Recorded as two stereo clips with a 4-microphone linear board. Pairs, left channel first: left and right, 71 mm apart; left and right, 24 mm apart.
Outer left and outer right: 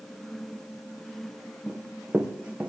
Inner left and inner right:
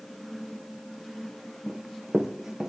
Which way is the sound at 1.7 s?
10° right (ahead or behind).